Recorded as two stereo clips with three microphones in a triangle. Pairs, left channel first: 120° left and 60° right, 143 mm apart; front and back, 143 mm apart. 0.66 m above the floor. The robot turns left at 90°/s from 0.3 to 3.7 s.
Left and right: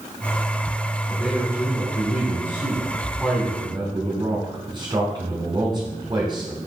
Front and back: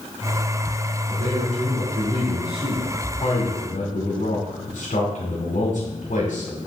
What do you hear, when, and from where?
1.1 s a man speaking: 130° right, 2.5 m; by 6.6 s 5° right, 2.5 m